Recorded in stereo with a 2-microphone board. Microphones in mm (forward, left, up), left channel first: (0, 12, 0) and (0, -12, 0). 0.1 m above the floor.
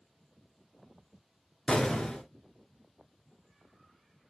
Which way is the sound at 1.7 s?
30° left (ahead or behind).